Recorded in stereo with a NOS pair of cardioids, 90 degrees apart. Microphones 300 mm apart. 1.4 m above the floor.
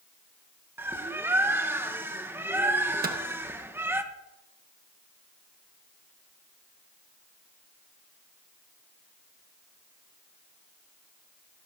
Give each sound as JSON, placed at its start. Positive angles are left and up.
{"t": 0.8, "sound": "a bird", "azimuth_deg": -10, "distance_m": 1.0}
{"t": 3.0, "sound": "a microwave", "azimuth_deg": -30, "distance_m": 1.2}